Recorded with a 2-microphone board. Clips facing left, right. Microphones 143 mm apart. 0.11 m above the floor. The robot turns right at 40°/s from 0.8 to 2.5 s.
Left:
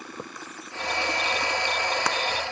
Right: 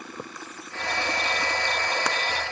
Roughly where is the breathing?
I don't hear breathing.